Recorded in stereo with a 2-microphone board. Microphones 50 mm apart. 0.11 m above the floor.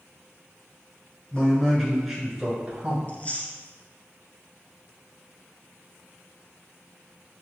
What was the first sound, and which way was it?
A man speaking, 20° left (ahead or behind).